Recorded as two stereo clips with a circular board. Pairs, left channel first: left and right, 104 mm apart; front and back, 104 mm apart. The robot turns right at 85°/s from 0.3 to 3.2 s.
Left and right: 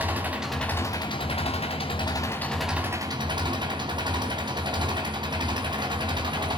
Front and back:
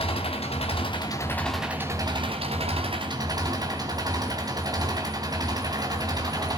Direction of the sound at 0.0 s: 20° right.